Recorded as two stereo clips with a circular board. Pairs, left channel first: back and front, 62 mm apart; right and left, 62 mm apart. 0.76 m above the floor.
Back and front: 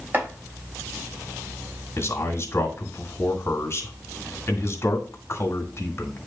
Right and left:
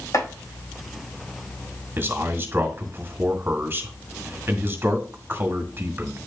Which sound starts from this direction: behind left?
A man speaking, at 2.0 s.